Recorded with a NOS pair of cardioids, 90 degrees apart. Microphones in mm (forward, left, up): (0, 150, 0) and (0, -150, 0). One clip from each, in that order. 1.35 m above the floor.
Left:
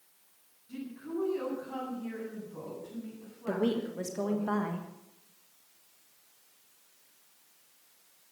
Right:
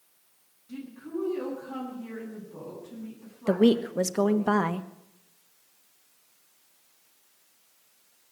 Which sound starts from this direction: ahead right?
A woman speaking, at 3.5 s.